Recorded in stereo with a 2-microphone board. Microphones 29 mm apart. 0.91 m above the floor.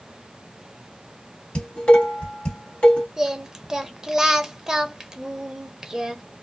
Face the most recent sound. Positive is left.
turn(degrees=-20)  # may be behind; listen again after turning